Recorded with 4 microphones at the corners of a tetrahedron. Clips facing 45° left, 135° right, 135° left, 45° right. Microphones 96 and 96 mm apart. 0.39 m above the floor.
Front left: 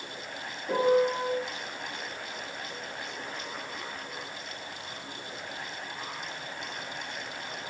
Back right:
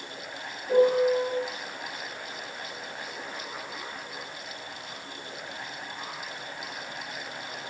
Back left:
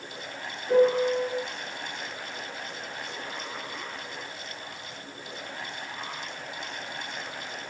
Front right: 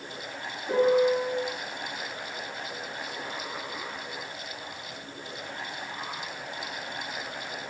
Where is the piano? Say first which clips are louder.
Back right 3 dB, back left 1 dB; 30° left, 2.5 m.